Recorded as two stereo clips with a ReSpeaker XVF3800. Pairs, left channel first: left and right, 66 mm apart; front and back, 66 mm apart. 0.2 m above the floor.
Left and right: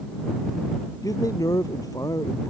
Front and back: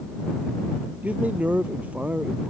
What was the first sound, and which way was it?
A man speaking, 110° left.